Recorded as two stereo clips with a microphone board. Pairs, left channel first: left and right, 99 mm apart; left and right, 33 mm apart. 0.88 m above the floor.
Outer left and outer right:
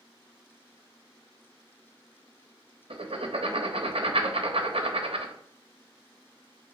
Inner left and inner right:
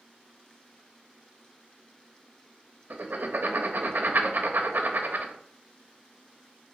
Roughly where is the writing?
Right.